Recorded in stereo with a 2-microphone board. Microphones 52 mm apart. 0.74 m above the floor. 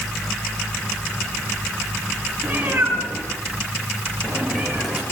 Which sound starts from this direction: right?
A cat meowing, at 2.4 s.